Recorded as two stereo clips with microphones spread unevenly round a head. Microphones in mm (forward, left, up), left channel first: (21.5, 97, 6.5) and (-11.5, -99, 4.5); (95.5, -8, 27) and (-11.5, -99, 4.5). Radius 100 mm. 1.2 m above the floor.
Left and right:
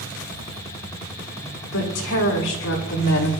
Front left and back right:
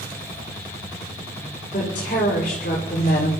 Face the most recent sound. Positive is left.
turn(degrees=85)